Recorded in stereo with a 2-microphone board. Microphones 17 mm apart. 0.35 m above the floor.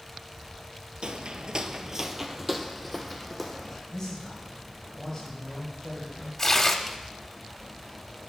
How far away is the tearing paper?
About 0.7 m.